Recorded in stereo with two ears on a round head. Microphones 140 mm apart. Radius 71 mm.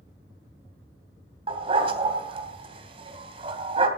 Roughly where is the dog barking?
Right.